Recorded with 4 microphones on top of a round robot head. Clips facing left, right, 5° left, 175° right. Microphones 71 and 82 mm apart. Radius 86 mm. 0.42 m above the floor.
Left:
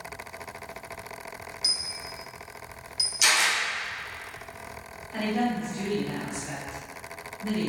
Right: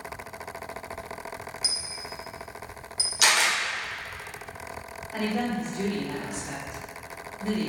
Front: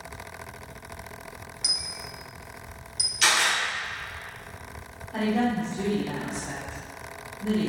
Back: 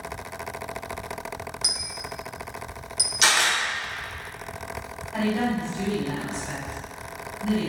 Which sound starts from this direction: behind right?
A dropped coin, at 1.6 s.